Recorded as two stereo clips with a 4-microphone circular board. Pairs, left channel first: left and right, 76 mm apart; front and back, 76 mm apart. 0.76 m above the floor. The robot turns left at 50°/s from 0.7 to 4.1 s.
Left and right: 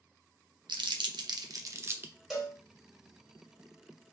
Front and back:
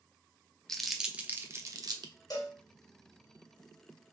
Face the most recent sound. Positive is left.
turn(degrees=-95)